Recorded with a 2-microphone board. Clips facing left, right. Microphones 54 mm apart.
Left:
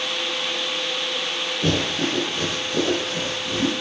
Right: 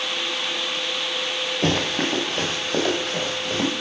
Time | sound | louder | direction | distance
1.6 | running footsteps | even | 70° right (ahead or behind) | 4 m